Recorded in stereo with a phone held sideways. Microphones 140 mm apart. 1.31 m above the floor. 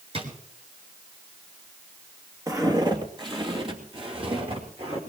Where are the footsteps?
25° right (ahead or behind), 2 m; by 5.0 s 50° right (ahead or behind), 4.5 m.